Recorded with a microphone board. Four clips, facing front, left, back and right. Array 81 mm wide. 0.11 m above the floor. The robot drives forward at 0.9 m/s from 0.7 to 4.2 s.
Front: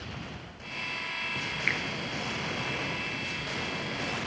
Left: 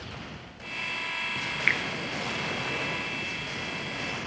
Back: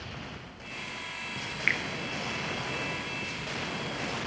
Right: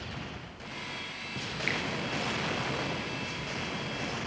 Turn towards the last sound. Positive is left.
turn(degrees=165)